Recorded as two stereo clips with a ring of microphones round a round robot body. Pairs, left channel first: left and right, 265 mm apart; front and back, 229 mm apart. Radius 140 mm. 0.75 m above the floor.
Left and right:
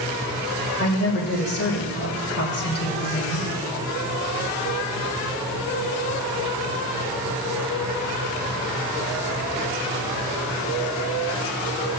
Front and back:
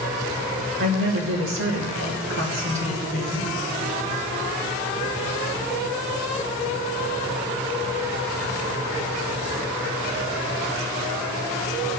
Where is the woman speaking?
145° left, 2.5 m.